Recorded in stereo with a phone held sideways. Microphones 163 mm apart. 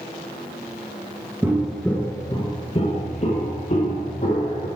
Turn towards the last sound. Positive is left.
turn(degrees=55)  # may be behind; listen again after turning